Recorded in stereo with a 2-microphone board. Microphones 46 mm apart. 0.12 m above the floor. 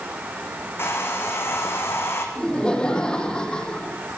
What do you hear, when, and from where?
0.8 s a hair dryer: 55° left (ahead or behind), 4 m
2.4 s laughter: 15° left (ahead or behind), 4.5 m